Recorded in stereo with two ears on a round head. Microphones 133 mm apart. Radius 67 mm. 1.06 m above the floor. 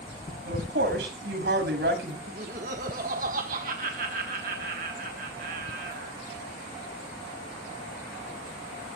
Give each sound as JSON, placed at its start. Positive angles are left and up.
{"t": 0.5, "sound": "a woman speaking", "side_deg": -90, "distance_m": 6.5}
{"t": 2.3, "sound": "laughter", "side_deg": -60, "distance_m": 1.3}